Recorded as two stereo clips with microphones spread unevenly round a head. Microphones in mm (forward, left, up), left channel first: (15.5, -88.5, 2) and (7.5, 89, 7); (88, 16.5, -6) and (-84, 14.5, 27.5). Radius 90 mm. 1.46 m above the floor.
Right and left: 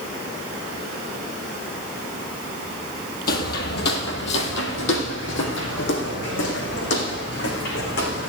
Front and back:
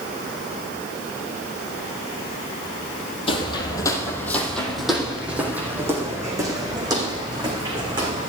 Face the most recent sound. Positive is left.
turn(degrees=-120)